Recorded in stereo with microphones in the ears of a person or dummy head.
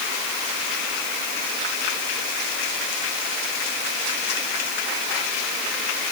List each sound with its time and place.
Only background noise.